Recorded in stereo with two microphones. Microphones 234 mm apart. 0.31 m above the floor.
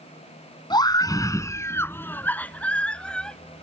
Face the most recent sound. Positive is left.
turn(degrees=0)  # may be behind; listen again after turning